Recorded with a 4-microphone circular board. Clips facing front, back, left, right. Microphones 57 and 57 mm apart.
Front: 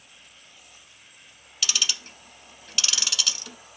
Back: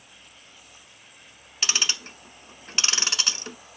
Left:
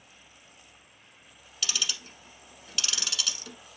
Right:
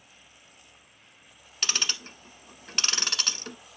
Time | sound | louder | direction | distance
1.6 | ticking | back 2 dB, right 2 dB | 125° right | 0.9 m